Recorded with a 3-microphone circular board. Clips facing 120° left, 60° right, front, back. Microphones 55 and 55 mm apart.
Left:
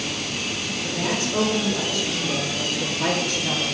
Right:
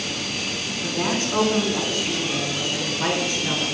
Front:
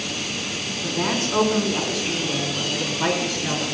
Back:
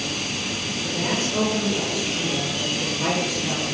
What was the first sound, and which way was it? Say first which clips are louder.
A woman speaking: right 2 dB, front 2 dB; 20° right.